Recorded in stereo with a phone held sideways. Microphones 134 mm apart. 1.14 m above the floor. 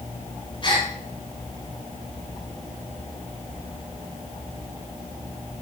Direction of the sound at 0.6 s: 40° left (ahead or behind).